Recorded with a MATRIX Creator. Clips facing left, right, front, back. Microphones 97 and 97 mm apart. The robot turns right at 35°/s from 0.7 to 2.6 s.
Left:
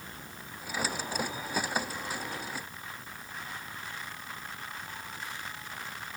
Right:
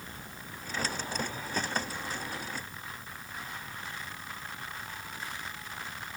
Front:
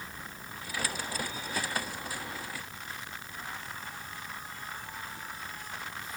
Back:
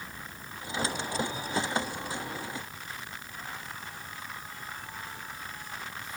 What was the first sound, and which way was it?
Only background noise.